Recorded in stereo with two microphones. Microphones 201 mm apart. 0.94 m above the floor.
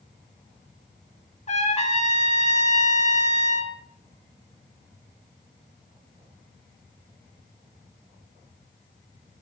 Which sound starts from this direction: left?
A trumpet, at 1.5 s.